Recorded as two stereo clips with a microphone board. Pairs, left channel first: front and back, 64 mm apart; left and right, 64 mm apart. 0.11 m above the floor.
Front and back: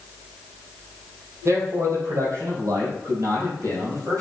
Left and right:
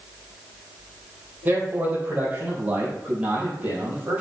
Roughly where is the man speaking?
Behind right.